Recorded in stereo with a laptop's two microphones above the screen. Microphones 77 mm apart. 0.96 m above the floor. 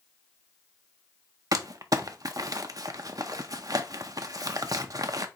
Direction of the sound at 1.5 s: 50° right (ahead or behind).